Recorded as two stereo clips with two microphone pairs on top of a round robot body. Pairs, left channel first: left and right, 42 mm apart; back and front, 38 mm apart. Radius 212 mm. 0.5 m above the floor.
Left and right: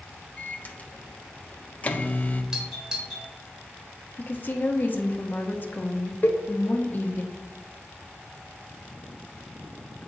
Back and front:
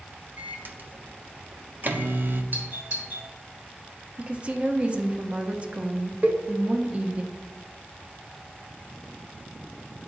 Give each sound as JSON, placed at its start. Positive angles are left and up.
{"t": 0.4, "sound": "a microwave", "azimuth_deg": 35, "distance_m": 0.9}
{"t": 2.5, "sound": "a doorbell", "azimuth_deg": -15, "distance_m": 2.5}
{"t": 4.2, "sound": "a woman speaking", "azimuth_deg": 55, "distance_m": 1.3}
{"t": 6.2, "sound": "a cowbell", "azimuth_deg": 45, "distance_m": 1.0}